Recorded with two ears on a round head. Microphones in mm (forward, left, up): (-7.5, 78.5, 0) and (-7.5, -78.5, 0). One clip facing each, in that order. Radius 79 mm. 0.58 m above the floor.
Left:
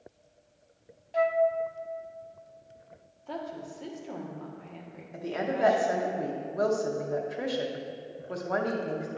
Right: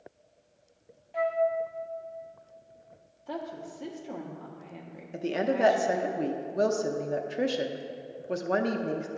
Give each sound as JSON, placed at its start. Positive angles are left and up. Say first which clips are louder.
{"t": 1.1, "sound": "a flute", "louder": "left 3 dB", "side_deg": 45, "distance_m": 0.5}
{"t": 3.3, "sound": "a woman speaking", "louder": "even", "side_deg": -10, "distance_m": 1.0}
{"t": 5.1, "sound": "a woman speaking", "louder": "right 3 dB", "side_deg": -30, "distance_m": 0.6}